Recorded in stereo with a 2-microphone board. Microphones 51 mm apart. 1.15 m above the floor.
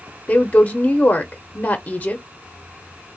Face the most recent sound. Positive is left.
turn(degrees=25)  # may be behind; listen again after turning